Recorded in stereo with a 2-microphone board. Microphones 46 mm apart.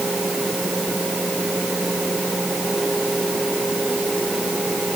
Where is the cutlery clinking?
No cutlery clinking in this recording.